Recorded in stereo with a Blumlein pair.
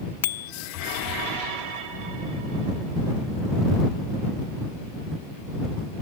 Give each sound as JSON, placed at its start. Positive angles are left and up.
{"t": 0.2, "sound": "a bicycle bell", "azimuth_deg": 60}